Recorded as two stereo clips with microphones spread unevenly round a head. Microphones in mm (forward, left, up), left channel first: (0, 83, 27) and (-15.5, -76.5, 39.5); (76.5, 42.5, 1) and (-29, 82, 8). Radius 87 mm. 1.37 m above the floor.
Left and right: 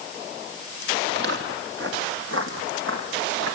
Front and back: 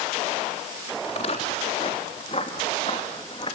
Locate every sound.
1.0 s footsteps: 70° right, 3.5 m; by 3.5 s 90° right, 4.5 m